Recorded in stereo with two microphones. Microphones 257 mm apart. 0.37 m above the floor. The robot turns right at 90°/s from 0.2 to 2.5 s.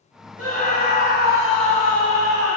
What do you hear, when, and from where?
0.4 s a scream: 100° right, 2.5 m; by 2.6 s 90° left, 2.5 m